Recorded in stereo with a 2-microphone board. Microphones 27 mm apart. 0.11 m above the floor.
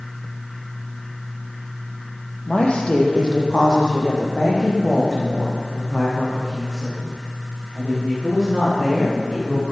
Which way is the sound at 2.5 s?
40° left (ahead or behind).